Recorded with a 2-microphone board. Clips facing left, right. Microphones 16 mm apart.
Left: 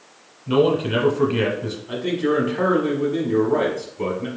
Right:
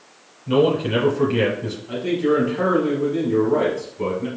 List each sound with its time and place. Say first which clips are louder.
0.5 s a man speaking: even; 5° right (ahead or behind), 1.3 m
1.9 s a man speaking: right 2 dB; 10° left (ahead or behind), 1.0 m